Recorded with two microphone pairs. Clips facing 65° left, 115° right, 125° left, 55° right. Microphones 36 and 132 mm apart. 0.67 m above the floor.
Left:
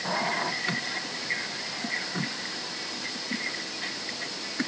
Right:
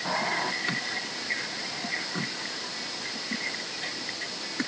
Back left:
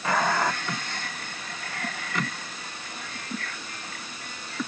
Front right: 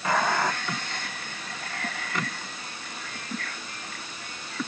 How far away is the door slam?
No door slam in this recording.